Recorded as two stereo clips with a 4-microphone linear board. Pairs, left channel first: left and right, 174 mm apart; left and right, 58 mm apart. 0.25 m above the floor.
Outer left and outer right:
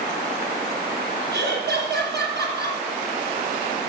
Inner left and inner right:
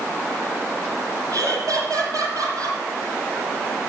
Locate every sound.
1.3 s laughter: 70° right (ahead or behind), 7.5 m